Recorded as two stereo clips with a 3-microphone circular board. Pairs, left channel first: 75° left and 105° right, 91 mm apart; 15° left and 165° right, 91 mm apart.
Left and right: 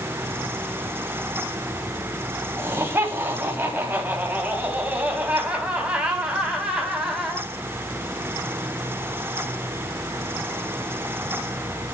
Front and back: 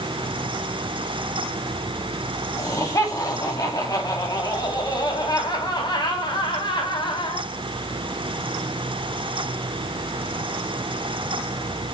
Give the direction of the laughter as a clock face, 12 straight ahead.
1 o'clock.